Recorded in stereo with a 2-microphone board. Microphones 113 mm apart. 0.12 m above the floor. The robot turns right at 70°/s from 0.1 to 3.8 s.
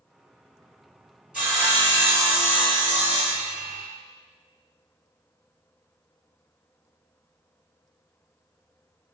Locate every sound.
1.3 s sawing: 170° right, 1.9 m; by 3.9 s straight ahead, 1.9 m